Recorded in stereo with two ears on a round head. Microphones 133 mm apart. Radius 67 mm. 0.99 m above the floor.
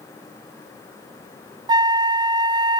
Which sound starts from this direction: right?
A flute, at 1.7 s.